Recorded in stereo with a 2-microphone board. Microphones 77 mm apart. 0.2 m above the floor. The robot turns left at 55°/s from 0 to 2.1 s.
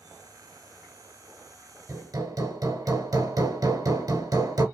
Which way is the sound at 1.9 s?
45° right (ahead or behind).